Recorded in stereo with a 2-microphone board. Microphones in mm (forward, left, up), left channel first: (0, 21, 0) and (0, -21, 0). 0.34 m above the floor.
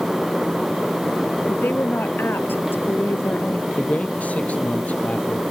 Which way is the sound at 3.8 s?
40° left (ahead or behind).